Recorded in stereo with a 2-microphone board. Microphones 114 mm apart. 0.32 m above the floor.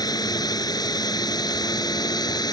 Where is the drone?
35° left (ahead or behind).